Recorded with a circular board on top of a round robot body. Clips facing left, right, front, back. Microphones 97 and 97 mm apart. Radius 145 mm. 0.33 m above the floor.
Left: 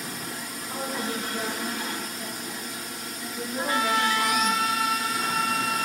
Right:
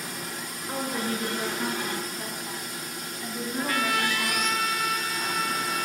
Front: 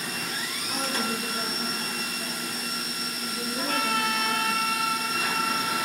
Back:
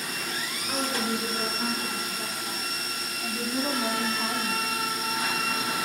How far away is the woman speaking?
About 6.5 m.